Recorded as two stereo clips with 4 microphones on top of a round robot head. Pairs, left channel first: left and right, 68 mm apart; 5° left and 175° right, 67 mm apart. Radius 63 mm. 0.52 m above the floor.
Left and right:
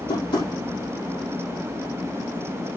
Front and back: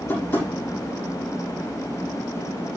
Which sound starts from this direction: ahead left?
Tapping, at 0.1 s.